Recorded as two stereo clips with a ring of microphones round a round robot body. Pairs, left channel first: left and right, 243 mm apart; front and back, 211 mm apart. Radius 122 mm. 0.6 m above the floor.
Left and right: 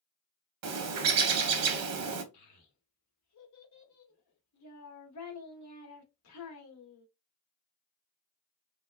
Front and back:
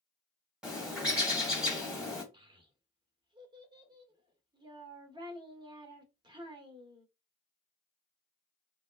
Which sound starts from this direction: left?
A child speaking, at 2.3 s.